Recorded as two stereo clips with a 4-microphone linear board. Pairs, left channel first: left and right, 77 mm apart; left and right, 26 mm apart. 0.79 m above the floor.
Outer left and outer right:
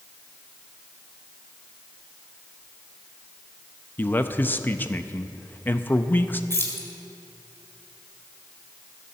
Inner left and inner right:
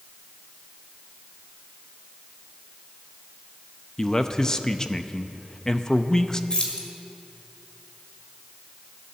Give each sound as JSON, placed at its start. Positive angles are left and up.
{"t": 4.0, "sound": "a man speaking", "side_deg": 25, "distance_m": 0.5}
{"t": 6.5, "sound": "keys jangling", "side_deg": 35, "distance_m": 2.0}